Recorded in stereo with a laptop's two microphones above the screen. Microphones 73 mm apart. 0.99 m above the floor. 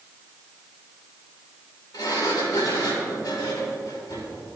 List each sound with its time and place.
1.9 s a sliding door: 65° left (ahead or behind), 4 m